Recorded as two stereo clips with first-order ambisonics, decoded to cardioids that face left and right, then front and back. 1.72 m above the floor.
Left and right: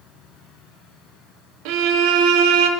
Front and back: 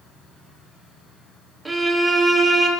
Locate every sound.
1.6 s a violin: 100° right, 0.6 m